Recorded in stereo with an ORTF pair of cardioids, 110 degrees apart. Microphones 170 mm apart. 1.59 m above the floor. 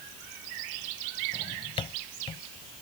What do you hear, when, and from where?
1.3 s a drawer: 35° left